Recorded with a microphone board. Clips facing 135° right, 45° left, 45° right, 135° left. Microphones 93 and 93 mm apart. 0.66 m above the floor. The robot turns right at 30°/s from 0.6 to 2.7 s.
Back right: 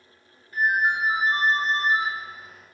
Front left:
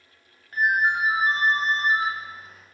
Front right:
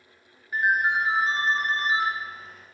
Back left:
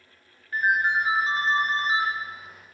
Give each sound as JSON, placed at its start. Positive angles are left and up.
{"t": 0.5, "sound": "a ringtone", "azimuth_deg": 35, "distance_m": 0.9}